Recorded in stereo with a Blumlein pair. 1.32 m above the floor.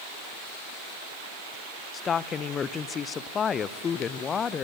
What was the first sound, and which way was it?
A woman speaking, 20° left.